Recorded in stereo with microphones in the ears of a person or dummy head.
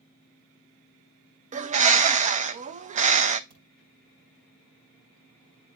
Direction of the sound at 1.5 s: 45° right (ahead or behind).